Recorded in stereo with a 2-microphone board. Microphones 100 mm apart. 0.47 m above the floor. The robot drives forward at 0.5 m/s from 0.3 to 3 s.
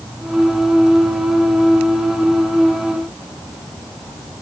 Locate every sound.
Only background noise.